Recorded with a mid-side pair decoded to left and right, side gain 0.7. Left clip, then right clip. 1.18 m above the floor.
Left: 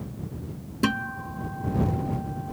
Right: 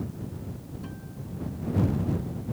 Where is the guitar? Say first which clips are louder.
Left 16 dB; 65° left.